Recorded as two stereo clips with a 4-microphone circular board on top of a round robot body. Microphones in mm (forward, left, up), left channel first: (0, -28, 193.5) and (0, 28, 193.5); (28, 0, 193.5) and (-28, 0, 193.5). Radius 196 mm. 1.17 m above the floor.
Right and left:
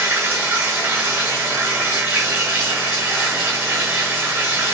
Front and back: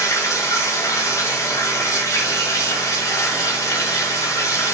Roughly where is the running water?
Ahead left.